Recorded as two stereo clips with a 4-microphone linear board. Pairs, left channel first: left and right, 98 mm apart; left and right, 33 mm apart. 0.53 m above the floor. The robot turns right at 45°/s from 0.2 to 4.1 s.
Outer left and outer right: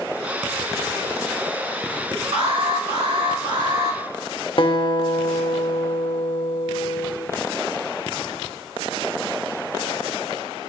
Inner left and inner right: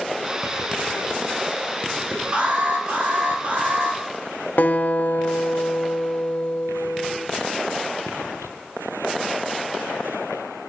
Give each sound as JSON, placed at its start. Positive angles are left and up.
{"t": 2.3, "sound": "an alarm", "azimuth_deg": -115, "distance_m": 3.5}
{"t": 4.6, "sound": "a guitar", "side_deg": 55, "distance_m": 0.7}